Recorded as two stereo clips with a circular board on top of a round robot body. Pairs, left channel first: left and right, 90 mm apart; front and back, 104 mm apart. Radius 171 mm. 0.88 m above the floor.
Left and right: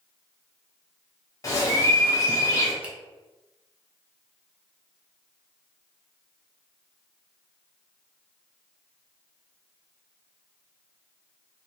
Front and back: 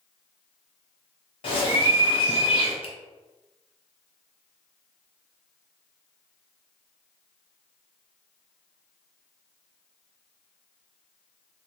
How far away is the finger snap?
About 1.1 m.